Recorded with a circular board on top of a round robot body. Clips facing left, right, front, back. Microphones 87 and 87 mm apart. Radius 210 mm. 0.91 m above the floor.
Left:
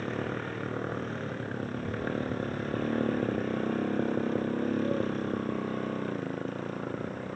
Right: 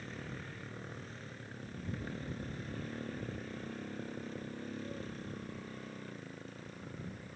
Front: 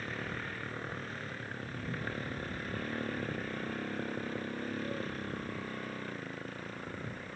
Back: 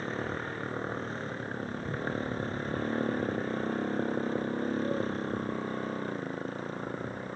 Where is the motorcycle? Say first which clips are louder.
Left 13 dB, back 6 dB; 120° left.